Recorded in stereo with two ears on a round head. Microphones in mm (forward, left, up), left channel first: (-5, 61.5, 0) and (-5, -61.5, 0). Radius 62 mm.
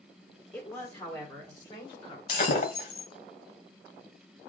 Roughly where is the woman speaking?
Centre.